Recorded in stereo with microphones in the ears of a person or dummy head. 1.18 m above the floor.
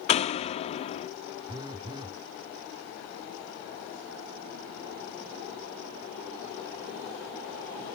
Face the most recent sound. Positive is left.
turn(degrees=-20)  # may be behind; listen again after turning